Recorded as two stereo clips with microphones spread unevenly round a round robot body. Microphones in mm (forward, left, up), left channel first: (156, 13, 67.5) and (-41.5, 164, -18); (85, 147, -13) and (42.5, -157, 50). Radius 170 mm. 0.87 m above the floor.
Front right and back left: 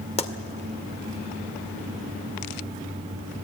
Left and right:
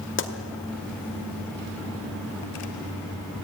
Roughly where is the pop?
Ahead left.